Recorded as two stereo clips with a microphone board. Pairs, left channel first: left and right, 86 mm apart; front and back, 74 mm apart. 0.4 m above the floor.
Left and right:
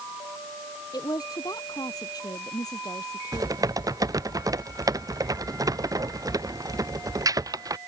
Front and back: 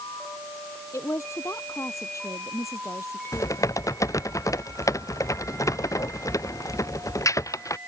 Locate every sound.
0.9 s a woman speaking: 50° left
3.3 s typing on a keyboard: 45° right